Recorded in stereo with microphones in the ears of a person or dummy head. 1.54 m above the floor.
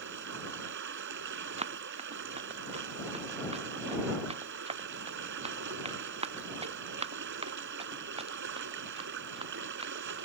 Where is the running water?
70° right (ahead or behind).